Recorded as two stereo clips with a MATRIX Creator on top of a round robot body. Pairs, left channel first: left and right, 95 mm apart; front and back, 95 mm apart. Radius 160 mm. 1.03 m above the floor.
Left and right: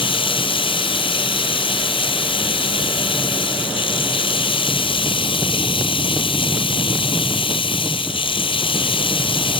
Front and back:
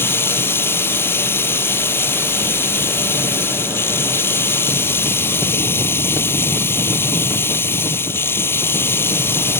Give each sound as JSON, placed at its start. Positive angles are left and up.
{"t": 0.0, "sound": "running water", "azimuth_deg": 65}